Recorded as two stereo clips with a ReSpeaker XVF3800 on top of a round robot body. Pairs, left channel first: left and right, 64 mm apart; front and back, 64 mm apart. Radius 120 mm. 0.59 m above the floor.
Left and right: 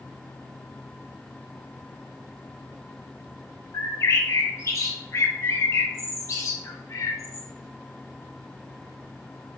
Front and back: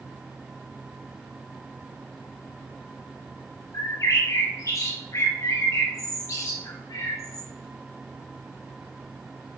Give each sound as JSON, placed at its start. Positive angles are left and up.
{"t": 3.7, "sound": "a bird", "azimuth_deg": 45, "distance_m": 1.1}